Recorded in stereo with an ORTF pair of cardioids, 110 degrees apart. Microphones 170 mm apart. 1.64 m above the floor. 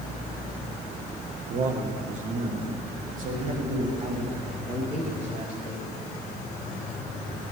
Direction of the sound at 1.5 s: 45° right.